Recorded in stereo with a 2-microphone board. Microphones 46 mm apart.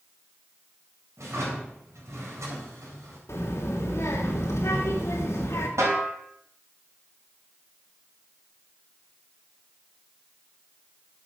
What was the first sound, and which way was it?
A drawer, 75° right (ahead or behind).